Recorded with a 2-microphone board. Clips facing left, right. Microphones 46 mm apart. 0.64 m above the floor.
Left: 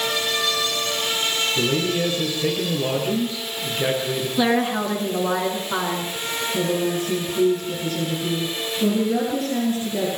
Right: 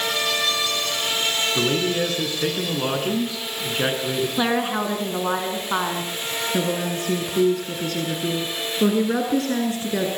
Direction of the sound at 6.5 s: 85° right.